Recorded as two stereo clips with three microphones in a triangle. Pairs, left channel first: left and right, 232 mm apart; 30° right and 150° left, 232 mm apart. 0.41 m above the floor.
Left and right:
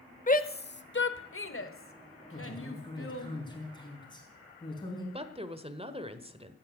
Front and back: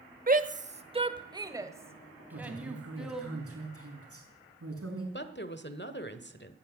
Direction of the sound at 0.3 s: 125° left.